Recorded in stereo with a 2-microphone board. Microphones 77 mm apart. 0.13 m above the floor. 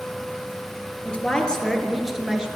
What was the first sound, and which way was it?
A woman speaking, 20° left (ahead or behind).